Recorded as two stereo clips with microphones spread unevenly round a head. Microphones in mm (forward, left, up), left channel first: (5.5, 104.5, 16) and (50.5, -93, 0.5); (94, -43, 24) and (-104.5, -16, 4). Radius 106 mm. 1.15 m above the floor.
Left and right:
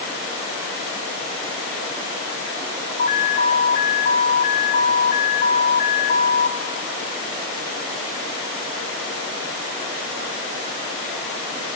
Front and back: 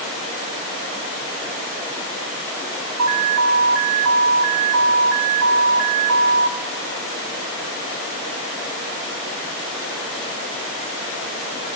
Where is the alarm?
160° left, 1.8 m.